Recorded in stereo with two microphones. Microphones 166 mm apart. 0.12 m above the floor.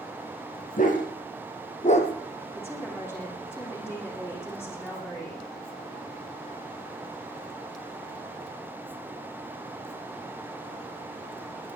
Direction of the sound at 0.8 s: 55° left (ahead or behind).